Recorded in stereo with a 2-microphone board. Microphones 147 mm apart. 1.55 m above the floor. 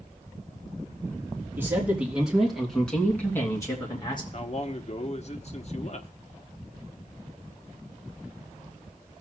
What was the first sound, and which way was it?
A man speaking, 15° right (ahead or behind).